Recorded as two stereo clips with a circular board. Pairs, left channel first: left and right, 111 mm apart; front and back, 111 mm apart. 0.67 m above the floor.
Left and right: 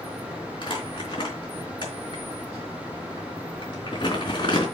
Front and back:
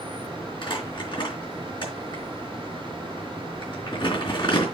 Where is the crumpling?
45° left, 3.5 m.